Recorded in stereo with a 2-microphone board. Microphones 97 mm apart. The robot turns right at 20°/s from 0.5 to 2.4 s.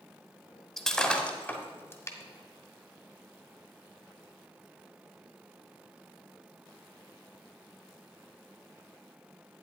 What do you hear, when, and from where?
0.8 s breaking glass: 5° left (ahead or behind), 1.1 m; by 2.2 s 30° left (ahead or behind), 1.1 m